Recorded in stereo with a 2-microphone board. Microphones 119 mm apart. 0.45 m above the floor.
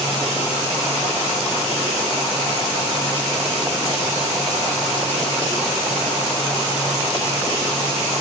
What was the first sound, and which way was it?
Only background noise.